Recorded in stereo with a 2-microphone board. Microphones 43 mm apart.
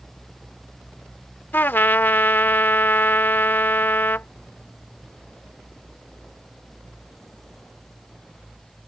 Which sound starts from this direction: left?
A trumpet, at 1.5 s.